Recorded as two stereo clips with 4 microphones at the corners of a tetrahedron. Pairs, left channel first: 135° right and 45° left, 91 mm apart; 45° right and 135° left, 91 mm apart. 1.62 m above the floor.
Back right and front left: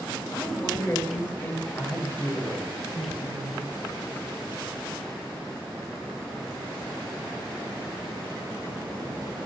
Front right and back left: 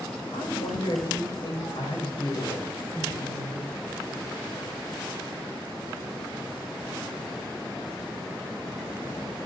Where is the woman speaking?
70° right, 5 m.